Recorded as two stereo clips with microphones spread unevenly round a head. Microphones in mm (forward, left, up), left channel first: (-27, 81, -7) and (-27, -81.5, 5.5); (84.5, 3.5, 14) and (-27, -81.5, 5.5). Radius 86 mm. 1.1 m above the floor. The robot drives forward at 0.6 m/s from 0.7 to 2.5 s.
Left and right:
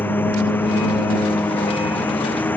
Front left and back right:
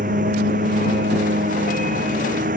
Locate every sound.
0.0 s a lawn mower: 170° left